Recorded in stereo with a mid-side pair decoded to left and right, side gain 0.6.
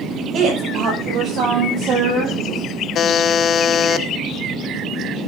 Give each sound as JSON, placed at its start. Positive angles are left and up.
{"t": 0.3, "sound": "a woman speaking", "azimuth_deg": -55, "distance_m": 9.5}
{"t": 3.0, "sound": "a buzzer", "azimuth_deg": 50, "distance_m": 1.2}